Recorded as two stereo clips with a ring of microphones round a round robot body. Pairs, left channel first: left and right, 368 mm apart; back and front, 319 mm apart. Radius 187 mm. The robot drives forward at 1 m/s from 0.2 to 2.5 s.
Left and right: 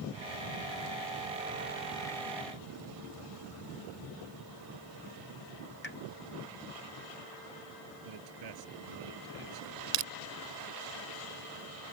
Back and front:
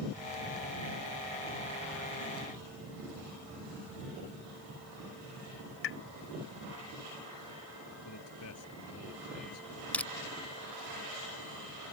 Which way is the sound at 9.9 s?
95° right.